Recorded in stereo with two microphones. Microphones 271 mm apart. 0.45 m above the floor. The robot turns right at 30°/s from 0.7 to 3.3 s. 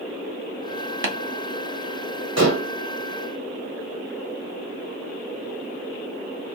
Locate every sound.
1.0 s tapping: 45° right (ahead or behind), 0.8 m
2.4 s dishes clattering: 65° right (ahead or behind), 1.1 m; by 2.7 s 60° right (ahead or behind), 1.1 m